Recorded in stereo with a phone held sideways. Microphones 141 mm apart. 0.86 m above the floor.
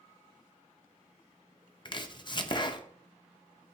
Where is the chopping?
35° left (ahead or behind), 0.6 m.